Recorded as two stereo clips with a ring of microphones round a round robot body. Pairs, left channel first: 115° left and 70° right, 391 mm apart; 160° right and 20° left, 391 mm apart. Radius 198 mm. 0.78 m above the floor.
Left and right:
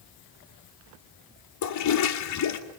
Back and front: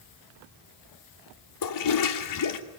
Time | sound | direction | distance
1.6 | a toilet flushing | 160° left | 2.5 m